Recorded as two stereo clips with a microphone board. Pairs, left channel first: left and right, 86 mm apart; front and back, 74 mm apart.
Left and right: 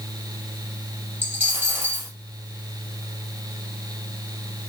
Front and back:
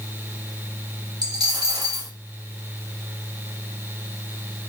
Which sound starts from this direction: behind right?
A dropped coin, at 1.2 s.